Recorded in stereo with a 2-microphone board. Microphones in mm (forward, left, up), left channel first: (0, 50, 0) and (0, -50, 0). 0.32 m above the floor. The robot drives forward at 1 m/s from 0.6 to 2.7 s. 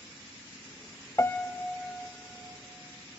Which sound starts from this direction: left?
A piano, at 1.2 s.